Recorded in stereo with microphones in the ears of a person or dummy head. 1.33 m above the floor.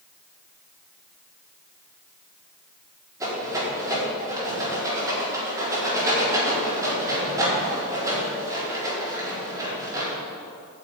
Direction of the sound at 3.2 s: 15° right (ahead or behind).